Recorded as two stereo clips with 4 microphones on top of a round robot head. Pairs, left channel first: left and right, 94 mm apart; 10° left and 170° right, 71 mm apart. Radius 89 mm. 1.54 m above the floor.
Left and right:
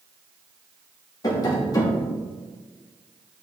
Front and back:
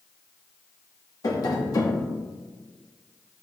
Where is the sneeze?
I don't hear a sneeze.